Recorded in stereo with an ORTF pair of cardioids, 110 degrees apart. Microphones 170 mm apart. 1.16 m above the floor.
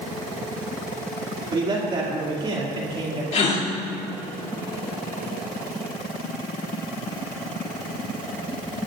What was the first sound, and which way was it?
A man speaking, 30° right.